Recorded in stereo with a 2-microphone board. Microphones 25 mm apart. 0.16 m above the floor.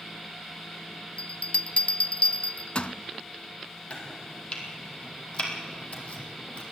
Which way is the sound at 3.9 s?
45° left (ahead or behind).